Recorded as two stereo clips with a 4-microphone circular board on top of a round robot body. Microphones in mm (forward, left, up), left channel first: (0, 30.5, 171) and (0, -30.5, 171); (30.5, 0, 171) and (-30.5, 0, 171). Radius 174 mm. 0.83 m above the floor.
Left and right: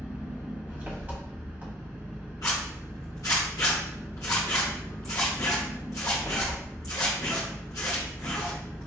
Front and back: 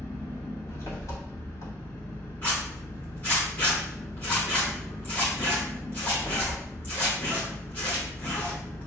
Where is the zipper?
60° left, 0.7 m.